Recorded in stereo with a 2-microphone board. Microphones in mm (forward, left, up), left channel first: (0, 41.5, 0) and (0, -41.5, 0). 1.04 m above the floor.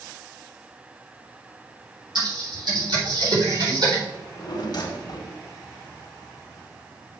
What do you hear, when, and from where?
2.1 s typing on a keyboard: 65° right (ahead or behind), 4 m
4.1 s a drawer: 55° left (ahead or behind), 1.4 m